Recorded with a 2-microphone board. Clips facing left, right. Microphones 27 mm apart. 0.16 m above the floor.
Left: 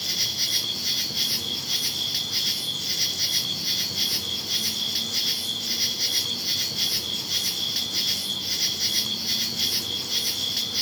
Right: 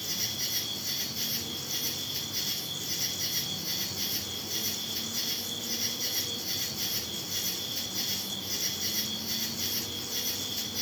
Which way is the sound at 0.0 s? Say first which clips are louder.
Left 7 dB; 65° left (ahead or behind).